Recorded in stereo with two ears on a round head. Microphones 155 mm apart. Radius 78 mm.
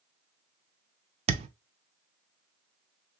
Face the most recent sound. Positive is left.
turn(degrees=-35)  # may be behind; listen again after turning